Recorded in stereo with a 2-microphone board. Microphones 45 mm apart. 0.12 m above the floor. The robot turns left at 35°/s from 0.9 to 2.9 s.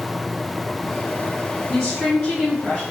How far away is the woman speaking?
About 1.6 m.